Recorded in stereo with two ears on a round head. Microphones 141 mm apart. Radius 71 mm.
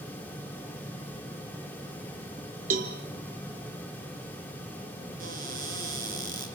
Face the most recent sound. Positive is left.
turn(degrees=-55)  # may be behind; listen again after turning